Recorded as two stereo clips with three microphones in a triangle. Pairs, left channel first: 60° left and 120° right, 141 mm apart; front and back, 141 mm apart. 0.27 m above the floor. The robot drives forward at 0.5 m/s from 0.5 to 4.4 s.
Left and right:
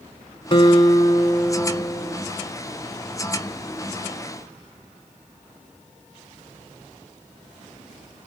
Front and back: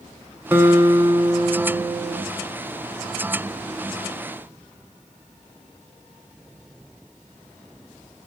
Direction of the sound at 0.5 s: 105° left.